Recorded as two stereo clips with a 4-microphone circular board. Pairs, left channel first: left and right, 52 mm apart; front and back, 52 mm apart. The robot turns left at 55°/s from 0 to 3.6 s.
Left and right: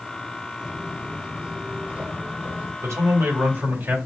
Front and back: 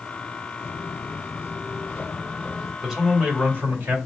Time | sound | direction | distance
0.6 | footsteps | 5° right | 1.5 m
2.8 | a man speaking | 90° right | 2.5 m